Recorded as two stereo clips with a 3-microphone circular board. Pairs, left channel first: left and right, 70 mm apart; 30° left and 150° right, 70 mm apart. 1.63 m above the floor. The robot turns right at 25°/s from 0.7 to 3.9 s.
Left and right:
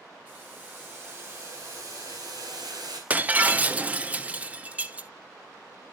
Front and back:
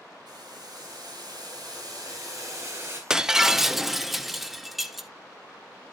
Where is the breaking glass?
85° right, 0.7 m; by 5.1 s 65° right, 0.7 m.